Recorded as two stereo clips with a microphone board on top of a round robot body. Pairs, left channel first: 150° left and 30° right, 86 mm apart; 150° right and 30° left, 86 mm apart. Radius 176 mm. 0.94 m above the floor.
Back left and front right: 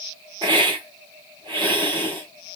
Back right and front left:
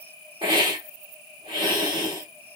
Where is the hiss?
5° left, 0.8 m.